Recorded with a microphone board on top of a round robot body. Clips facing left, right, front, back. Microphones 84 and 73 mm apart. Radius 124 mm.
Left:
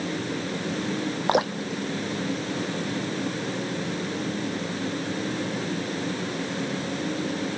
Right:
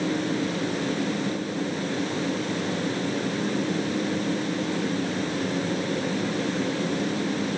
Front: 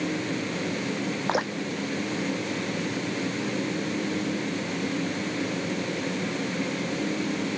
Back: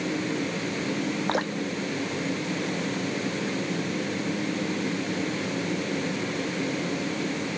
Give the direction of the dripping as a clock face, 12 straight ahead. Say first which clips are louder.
Left 4 dB, even; 9 o'clock.